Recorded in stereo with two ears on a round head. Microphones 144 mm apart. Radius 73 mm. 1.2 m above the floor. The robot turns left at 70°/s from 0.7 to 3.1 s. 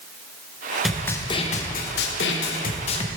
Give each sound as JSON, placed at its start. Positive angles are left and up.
{"t": 0.8, "sound": "a snare drum", "azimuth_deg": 180, "distance_m": 0.7}